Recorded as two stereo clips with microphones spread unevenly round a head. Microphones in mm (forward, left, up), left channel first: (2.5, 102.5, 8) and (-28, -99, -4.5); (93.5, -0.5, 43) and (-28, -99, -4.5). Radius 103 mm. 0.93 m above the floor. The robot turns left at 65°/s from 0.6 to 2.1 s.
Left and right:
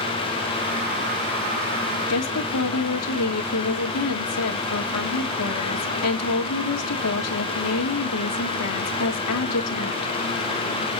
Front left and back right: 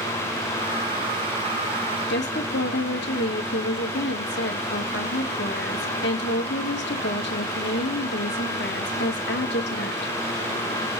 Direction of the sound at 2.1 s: 80° left.